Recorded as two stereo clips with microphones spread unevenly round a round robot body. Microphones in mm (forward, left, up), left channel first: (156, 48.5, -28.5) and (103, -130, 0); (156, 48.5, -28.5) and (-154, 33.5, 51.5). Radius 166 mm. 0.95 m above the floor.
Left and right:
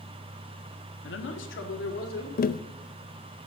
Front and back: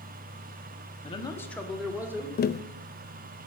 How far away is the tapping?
About 0.5 m.